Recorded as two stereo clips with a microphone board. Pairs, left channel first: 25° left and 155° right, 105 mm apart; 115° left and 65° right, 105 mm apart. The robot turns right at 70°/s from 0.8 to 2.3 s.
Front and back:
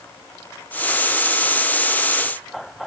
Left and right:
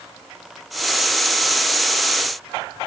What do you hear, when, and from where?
Only background noise.